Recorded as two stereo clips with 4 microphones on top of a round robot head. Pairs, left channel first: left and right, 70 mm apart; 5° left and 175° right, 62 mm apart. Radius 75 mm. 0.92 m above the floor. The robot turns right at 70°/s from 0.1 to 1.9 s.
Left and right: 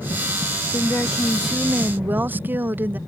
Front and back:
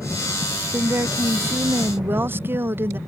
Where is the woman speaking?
140° left; by 3.0 s 140° right.